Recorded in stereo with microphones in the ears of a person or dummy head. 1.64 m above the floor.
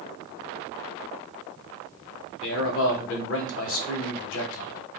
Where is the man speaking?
65° left (ahead or behind), 0.9 m.